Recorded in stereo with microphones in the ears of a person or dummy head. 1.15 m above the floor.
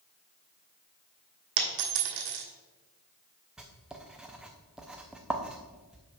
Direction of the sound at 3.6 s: 5° right (ahead or behind).